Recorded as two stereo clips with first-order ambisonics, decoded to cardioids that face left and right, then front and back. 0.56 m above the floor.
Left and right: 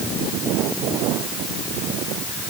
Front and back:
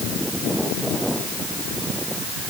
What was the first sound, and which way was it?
Only background noise.